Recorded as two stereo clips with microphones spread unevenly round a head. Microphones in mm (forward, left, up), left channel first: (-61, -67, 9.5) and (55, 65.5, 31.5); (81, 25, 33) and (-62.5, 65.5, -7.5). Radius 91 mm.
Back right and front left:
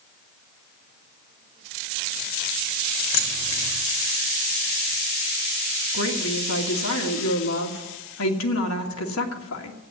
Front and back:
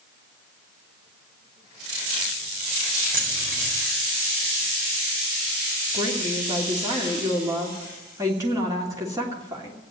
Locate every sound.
3.1 s keys jangling: 145° right, 4 m
5.9 s a woman speaking: 120° right, 2.5 m